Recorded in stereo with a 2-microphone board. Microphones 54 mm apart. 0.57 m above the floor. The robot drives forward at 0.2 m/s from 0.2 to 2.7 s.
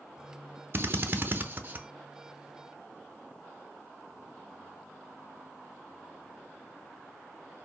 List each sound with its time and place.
0.7 s a drill: 45° right (ahead or behind), 0.6 m; by 1.9 s 35° right (ahead or behind), 0.8 m